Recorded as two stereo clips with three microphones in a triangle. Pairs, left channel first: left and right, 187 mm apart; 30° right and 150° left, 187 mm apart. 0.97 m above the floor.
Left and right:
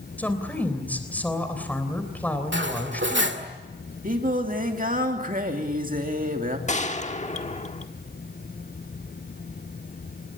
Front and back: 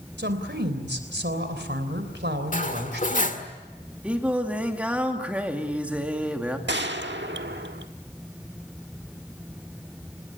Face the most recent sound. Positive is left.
turn(degrees=140)